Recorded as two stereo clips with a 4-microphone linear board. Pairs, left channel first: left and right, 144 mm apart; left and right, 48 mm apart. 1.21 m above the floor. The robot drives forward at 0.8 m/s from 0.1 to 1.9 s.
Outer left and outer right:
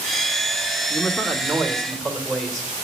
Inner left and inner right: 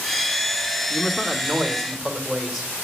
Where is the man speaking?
5° left (ahead or behind), 0.9 m.